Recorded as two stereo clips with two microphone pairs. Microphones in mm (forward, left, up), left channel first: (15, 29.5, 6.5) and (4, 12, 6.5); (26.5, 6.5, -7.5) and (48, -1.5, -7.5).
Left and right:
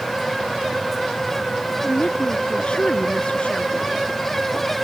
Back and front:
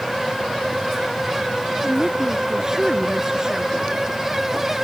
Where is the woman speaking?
40° left.